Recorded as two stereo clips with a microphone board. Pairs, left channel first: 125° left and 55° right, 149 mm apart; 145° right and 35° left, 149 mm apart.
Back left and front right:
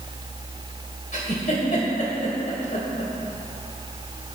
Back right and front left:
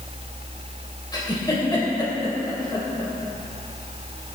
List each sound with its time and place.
1.1 s a giggle: 155° left, 2.5 m